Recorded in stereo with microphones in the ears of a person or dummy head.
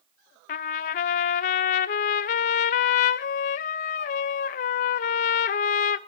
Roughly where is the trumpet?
Left.